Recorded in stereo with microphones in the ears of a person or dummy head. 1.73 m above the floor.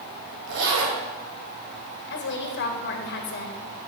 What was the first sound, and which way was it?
A zipper, 80° right.